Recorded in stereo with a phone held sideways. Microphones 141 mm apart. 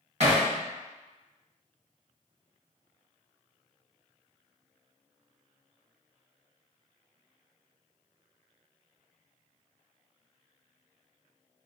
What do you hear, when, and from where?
0.2 s hammering: 55° right (ahead or behind), 1.3 m